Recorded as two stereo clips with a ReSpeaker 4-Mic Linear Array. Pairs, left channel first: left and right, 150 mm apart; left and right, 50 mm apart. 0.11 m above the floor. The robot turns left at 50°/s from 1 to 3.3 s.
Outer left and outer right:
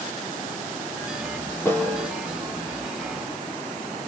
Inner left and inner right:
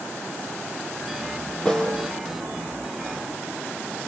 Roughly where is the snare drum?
Centre.